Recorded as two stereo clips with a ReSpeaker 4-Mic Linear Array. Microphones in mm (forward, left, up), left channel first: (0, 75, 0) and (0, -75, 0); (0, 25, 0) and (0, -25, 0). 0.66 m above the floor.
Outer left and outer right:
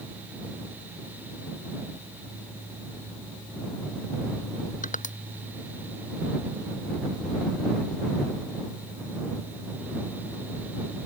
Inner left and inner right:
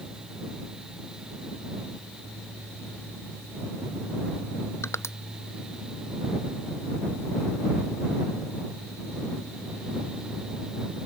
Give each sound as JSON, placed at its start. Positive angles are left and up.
{"t": 4.8, "sound": "crushing", "side_deg": 60}